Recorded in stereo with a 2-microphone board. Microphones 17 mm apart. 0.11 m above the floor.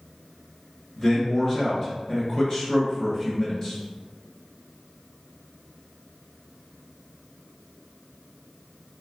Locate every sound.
1.0 s a man speaking: 30° left (ahead or behind), 1.5 m